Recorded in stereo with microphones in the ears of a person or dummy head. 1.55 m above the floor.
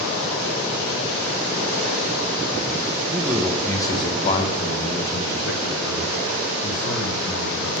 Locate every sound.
3.1 s a man speaking: 10° right (ahead or behind), 0.7 m; by 7.8 s 70° left (ahead or behind), 2.5 m